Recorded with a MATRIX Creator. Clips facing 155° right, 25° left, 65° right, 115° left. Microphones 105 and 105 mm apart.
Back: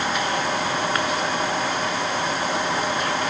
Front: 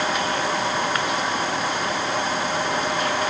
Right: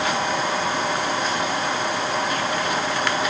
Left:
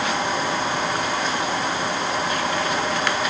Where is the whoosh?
No whoosh in this recording.